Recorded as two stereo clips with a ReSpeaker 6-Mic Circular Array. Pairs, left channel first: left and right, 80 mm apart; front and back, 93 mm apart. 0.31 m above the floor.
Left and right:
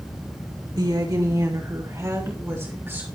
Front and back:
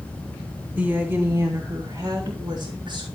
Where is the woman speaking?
105° right, 2.5 m; by 3.1 s 150° right, 4.5 m.